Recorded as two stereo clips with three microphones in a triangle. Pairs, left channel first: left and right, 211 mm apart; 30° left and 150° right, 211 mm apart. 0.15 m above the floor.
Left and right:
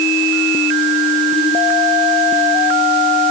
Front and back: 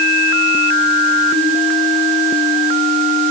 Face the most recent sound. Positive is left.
No sound to turn to.